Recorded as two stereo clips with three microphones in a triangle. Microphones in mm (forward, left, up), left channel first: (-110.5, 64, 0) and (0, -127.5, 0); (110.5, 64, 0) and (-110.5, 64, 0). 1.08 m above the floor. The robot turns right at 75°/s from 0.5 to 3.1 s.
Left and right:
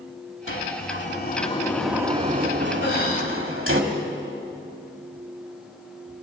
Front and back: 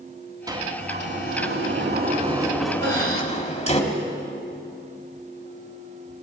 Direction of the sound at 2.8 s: 150° left.